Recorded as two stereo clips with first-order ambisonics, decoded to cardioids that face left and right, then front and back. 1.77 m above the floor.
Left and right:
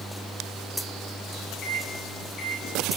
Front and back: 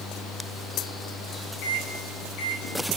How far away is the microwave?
About 3.5 m.